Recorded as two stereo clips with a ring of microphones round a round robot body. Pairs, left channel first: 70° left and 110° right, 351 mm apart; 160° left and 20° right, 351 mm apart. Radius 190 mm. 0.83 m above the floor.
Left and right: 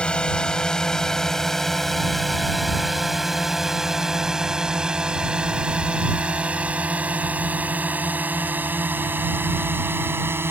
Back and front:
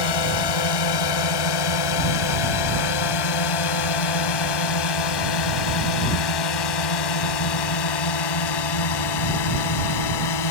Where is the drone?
155° left; by 10.5 s 165° left.